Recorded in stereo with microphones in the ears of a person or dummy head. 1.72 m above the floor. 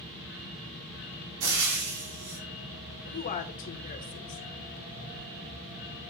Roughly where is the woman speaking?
Left.